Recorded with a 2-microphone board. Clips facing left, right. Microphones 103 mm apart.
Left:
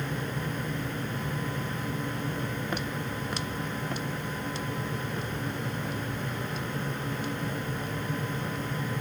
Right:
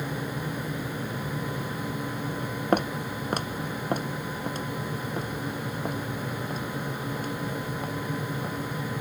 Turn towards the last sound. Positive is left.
turn(degrees=-40)  # may be behind; listen again after turning